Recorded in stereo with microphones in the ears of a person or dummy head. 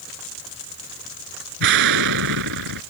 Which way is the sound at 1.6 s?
70° right (ahead or behind).